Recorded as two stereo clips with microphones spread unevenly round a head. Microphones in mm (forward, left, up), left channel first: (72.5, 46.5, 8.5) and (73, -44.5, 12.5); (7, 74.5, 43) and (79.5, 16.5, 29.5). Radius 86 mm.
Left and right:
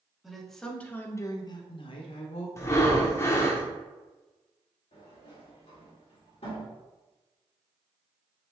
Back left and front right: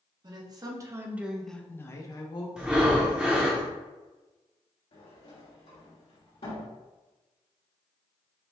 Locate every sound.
0.2 s a woman speaking: straight ahead, 1.3 m; by 2.5 s 100° left, 1.1 m
2.6 s breathing: 50° left, 0.8 m
4.9 s a sliding door: 130° left, 1.7 m